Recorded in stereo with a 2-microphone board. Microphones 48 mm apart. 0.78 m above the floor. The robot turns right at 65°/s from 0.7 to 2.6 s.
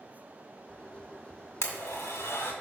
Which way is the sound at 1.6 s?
65° left (ahead or behind).